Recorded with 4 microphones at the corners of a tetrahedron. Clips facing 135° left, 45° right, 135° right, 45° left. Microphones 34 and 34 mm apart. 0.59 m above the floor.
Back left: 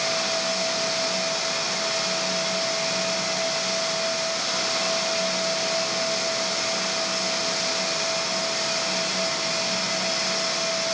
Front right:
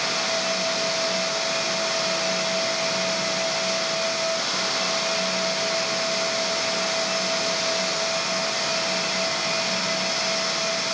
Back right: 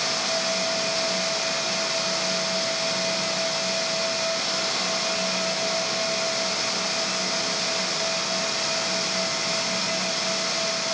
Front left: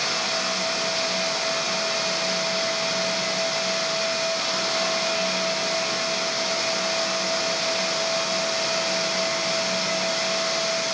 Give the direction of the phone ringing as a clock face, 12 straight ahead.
No phone ringing in this recording.